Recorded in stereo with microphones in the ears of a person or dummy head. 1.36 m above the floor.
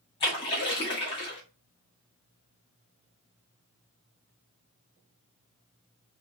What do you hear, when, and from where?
0.2 s a splash: 25° left (ahead or behind), 0.9 m